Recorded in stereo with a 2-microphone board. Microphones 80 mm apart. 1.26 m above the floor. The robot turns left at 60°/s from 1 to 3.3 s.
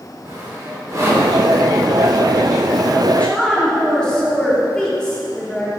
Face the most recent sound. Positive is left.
turn(degrees=10)  # may be behind; listen again after turning